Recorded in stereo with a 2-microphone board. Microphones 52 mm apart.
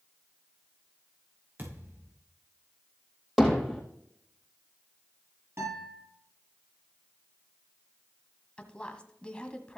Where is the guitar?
50° right (ahead or behind), 6.5 m.